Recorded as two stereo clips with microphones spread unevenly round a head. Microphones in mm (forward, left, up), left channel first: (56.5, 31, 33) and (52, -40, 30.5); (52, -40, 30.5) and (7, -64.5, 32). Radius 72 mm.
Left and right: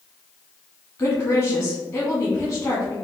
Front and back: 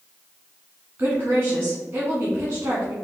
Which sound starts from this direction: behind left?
A woman speaking, at 1.0 s.